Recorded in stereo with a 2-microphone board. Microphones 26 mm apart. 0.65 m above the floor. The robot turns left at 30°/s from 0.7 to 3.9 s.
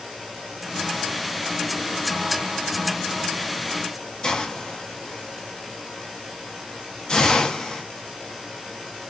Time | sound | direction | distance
4.2 | a hiss | 25° left (ahead or behind) | 0.6 m